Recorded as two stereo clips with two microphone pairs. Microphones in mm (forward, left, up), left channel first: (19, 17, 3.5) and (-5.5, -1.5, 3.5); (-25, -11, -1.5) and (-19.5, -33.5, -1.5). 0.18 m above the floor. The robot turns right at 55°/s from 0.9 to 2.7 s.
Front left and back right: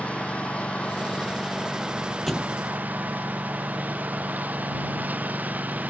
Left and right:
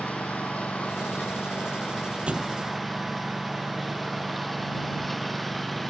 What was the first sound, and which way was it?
A lawn mower, 85° left.